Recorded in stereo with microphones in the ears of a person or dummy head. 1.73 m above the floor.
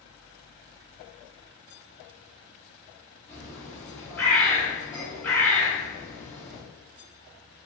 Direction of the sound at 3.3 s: 10° left (ahead or behind).